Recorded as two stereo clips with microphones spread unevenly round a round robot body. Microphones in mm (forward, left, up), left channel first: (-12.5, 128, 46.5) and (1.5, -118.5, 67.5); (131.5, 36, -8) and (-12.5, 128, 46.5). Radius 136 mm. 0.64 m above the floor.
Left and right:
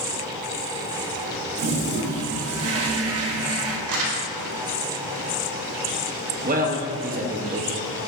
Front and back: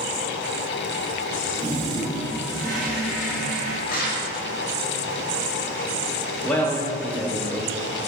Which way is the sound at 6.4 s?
70° right.